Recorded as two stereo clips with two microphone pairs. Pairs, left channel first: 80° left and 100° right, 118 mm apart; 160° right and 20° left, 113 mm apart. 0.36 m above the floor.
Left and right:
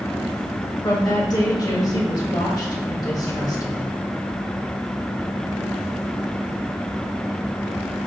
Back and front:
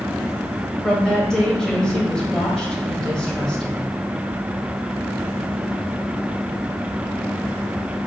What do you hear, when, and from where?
0.8 s a woman speaking: 120° left, 1.3 m